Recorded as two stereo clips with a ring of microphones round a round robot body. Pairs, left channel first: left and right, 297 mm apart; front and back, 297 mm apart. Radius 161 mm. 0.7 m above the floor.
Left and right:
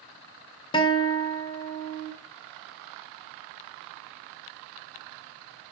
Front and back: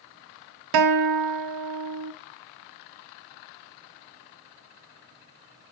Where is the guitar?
165° left, 1.7 m.